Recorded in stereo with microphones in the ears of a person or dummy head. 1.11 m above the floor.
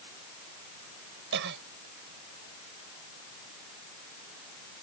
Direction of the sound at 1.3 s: 65° right (ahead or behind).